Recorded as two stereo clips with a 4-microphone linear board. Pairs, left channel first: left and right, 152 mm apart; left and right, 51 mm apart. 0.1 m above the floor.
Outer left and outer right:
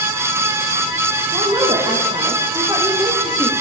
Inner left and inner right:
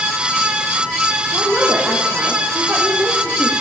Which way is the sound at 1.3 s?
20° right (ahead or behind).